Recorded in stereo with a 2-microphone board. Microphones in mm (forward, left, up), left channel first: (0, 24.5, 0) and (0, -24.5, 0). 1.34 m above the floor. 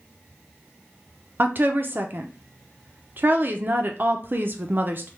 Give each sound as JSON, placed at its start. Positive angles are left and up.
{"t": 1.4, "sound": "a woman speaking", "side_deg": -45, "distance_m": 0.7}